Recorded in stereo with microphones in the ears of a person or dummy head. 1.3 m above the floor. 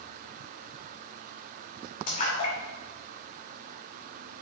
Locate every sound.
2.1 s a splash: 45° left (ahead or behind), 2.5 m